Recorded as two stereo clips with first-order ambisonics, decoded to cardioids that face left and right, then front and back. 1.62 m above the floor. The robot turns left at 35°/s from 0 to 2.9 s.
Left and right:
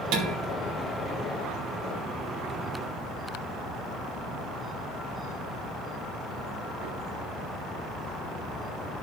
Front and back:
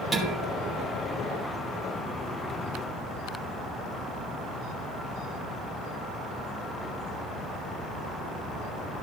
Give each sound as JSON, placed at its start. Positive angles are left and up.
{"t": 0.1, "sound": "dishes clattering", "azimuth_deg": -85, "distance_m": 2.5}